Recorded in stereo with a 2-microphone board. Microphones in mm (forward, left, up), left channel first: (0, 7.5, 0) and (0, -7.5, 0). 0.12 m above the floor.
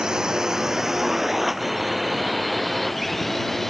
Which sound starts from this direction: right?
A drone, at 0.0 s.